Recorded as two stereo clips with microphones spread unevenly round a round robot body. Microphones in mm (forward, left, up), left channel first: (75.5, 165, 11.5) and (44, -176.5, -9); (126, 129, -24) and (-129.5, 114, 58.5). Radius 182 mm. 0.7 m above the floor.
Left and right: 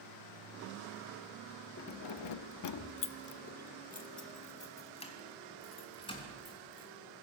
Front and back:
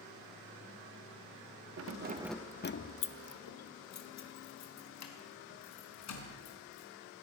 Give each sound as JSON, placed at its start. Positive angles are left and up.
{"t": 1.8, "sound": "keys jangling", "azimuth_deg": 145, "distance_m": 0.8}